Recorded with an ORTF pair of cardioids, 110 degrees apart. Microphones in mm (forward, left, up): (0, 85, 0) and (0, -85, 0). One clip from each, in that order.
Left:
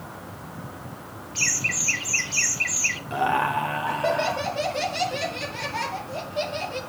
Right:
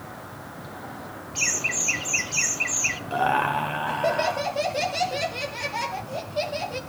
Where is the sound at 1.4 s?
5° left, 0.9 m.